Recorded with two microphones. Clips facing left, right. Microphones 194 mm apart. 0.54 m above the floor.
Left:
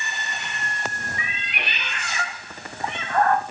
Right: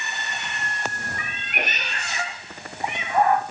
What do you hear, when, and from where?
1.2 s a cat meowing: 55° right (ahead or behind), 1.0 m; by 3.4 s 10° right (ahead or behind), 1.6 m